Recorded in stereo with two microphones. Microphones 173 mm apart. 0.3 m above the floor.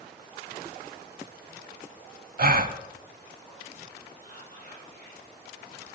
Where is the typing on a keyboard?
I don't hear typing on a keyboard.